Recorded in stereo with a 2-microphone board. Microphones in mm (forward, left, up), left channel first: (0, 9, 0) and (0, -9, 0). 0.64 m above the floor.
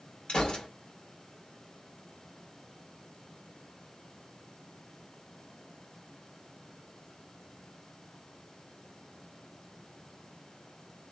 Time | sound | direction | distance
0.3 | a gunshot | 60° left (ahead or behind) | 1.6 m